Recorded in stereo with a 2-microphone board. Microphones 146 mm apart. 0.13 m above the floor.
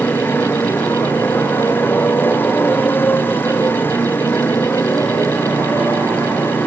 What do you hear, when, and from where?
0.0 s a motorcycle: 15° left (ahead or behind)